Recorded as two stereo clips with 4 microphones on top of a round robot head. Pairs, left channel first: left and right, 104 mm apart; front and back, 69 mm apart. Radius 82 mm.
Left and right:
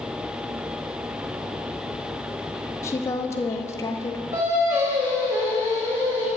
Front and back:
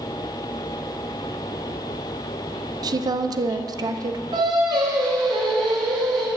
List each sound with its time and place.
2.8 s a woman speaking: 155° left, 0.6 m
4.3 s singing: 165° right, 2.5 m